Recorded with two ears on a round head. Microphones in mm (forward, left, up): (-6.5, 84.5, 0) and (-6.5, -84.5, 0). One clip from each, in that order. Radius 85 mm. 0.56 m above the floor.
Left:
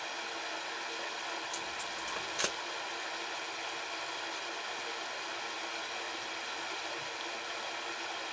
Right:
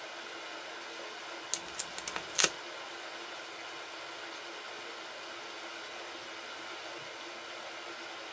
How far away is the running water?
About 0.7 m.